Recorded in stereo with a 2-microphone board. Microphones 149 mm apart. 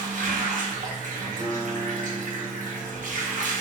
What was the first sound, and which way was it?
Running water, 60° right (ahead or behind).